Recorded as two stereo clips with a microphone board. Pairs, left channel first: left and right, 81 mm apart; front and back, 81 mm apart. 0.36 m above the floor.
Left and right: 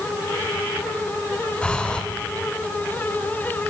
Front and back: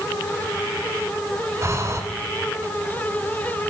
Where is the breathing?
160° left, 1.7 m.